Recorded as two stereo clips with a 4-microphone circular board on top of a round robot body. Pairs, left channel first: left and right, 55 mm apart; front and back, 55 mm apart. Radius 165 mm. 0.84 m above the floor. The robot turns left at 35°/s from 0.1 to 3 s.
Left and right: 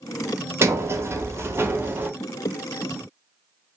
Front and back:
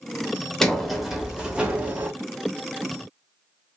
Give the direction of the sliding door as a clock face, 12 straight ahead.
3 o'clock.